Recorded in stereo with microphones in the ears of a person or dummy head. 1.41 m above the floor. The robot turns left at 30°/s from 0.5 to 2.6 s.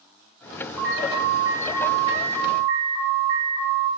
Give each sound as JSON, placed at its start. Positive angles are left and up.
{"t": 0.8, "sound": "an alarm", "azimuth_deg": -5, "distance_m": 1.4}